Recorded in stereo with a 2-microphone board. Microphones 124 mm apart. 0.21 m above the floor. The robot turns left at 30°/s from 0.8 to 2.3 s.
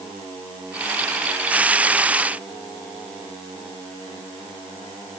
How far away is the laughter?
No laughter in this recording.